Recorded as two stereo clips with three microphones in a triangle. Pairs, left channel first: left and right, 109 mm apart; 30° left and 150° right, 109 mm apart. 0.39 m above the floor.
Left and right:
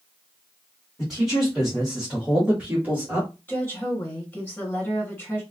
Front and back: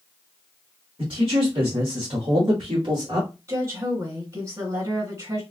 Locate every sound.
1.0 s a man speaking: straight behind, 2.5 m; by 3.3 s 145° right, 1.3 m
3.5 s a woman speaking: 160° left, 2 m